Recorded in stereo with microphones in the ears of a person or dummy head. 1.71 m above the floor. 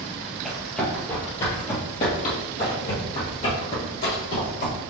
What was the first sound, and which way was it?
Running footsteps, centre (ahead or behind).